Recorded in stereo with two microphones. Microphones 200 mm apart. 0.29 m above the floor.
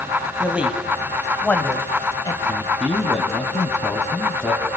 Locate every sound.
0.4 s a man speaking: 10° right (ahead or behind), 2 m; by 2.4 s 20° left (ahead or behind), 1.7 m
2.5 s a man speaking: centre (ahead or behind), 2.5 m